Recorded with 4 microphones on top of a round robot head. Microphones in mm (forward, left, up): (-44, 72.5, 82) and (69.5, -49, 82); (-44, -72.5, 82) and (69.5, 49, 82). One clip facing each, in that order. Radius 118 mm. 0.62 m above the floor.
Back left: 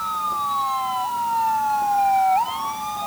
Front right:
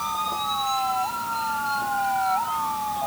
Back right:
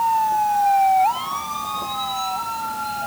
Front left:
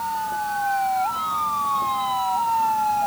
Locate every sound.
Only background noise.